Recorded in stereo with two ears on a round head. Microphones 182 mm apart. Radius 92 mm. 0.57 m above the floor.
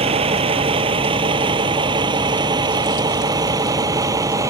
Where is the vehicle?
30° right (ahead or behind); by 4.5 s 15° right (ahead or behind).